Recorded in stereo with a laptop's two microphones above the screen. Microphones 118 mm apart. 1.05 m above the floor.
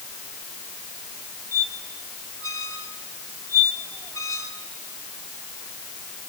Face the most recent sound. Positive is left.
turn(degrees=25)  # may be behind; listen again after turning